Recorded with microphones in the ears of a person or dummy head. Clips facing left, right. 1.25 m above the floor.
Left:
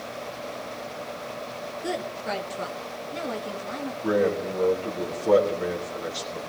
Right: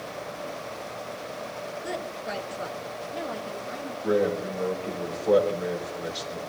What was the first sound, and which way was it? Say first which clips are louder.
A woman speaking: left 5 dB; 60° left (ahead or behind).